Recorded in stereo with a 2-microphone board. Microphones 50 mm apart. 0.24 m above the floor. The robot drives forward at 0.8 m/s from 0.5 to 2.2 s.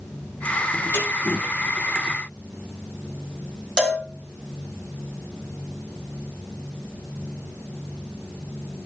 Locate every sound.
0.9 s a snare drum: 45° left (ahead or behind), 6.5 m
3.8 s a cowbell: 20° left (ahead or behind), 2 m